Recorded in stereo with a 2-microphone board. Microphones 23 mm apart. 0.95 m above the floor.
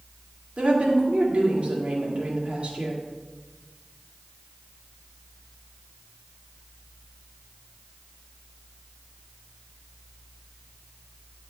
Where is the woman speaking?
55° right (ahead or behind), 1.9 m.